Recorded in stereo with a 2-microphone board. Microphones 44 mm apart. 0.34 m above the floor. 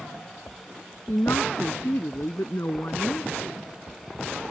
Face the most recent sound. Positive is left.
turn(degrees=65)  # may be behind; listen again after turning